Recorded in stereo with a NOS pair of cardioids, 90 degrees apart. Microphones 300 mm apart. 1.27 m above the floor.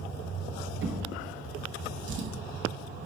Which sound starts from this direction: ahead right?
A drawer, at 0.8 s.